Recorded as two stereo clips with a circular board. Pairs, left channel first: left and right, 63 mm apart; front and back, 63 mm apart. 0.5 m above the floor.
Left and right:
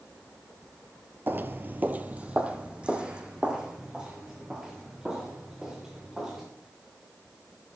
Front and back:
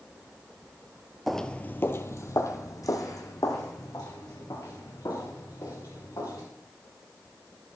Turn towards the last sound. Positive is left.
turn(degrees=-10)